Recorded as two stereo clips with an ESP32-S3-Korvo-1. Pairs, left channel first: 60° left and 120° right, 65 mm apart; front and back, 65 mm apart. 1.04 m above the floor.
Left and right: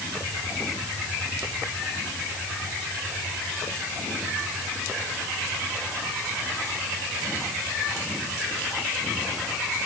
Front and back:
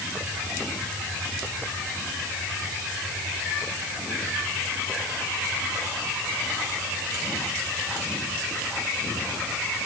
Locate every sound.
Only background noise.